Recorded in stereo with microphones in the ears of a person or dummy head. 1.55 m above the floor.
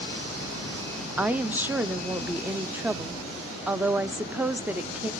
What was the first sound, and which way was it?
A woman speaking, 15° right (ahead or behind).